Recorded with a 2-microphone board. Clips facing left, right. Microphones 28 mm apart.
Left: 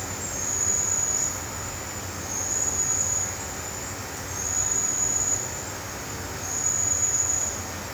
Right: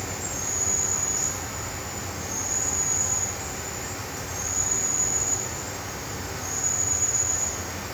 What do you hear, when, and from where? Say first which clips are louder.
0.0 s an insect: right 1 dB; 10° right (ahead or behind), 1.4 m